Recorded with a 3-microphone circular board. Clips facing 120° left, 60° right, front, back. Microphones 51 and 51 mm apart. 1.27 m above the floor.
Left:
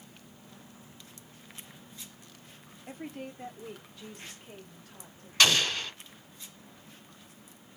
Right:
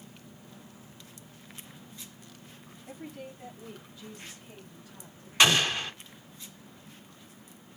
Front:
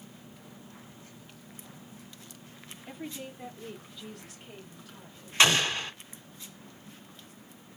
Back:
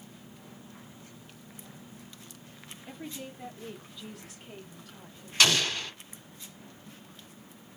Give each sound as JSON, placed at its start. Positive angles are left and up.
{"t": 2.9, "sound": "a woman speaking", "azimuth_deg": 80, "distance_m": 0.9}
{"t": 5.4, "sound": "an explosion", "azimuth_deg": -10, "distance_m": 1.2}